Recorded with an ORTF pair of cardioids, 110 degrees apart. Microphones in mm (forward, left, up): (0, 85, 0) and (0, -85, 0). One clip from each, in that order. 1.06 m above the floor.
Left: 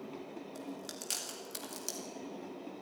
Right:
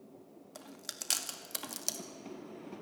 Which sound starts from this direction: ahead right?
Chewing, at 0.6 s.